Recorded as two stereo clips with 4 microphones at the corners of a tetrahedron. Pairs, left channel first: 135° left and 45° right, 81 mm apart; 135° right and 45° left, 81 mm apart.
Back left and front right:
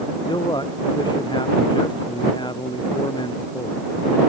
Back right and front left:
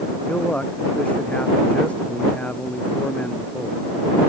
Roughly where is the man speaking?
Behind left.